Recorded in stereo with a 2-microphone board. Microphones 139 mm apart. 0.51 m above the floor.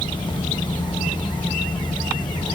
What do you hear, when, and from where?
Only background noise.